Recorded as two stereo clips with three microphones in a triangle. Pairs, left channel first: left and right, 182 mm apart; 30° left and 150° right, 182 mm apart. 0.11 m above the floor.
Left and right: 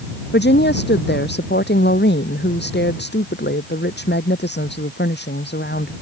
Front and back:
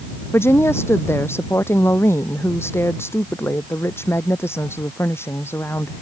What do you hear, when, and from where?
0.3 s a woman speaking: 105° left